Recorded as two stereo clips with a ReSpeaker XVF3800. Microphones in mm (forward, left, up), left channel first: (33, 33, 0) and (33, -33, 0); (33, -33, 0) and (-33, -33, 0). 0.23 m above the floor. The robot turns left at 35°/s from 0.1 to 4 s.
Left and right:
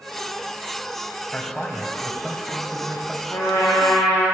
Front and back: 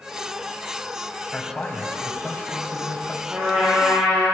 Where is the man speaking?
50° left, 1.6 m; by 3.2 s 15° right, 1.6 m.